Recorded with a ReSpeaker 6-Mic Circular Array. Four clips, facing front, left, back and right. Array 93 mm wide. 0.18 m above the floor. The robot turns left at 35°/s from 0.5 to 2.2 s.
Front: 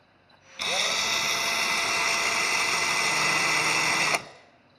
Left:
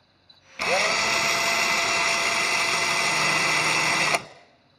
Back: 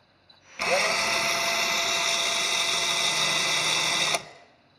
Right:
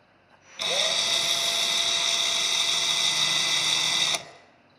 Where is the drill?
120° left, 0.5 m; by 4.3 s 65° left, 0.5 m.